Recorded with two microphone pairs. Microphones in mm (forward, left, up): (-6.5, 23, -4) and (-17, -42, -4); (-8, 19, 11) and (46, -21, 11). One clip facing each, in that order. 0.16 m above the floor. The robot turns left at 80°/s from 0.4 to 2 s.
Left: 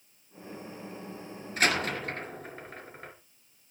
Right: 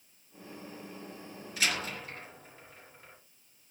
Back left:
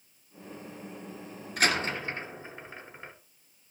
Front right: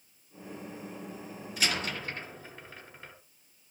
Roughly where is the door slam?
Behind left.